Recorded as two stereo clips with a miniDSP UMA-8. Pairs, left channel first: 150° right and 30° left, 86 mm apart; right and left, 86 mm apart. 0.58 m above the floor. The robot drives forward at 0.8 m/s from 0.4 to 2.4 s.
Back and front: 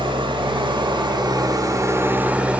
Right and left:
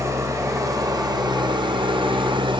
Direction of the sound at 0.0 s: 40° left.